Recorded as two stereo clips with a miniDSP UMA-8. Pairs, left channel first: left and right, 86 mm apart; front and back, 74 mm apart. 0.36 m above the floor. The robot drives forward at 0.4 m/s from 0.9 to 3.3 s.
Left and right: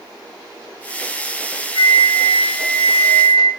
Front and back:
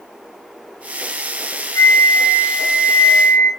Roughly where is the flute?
Ahead left.